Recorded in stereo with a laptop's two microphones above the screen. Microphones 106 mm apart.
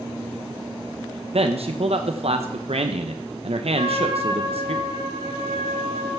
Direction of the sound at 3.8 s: 75° right (ahead or behind).